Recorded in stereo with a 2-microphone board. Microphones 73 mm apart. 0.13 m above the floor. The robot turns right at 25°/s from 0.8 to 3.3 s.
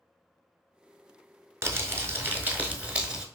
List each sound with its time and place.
1.6 s crumpling: 55° right, 0.6 m; by 3.2 s 10° right, 0.6 m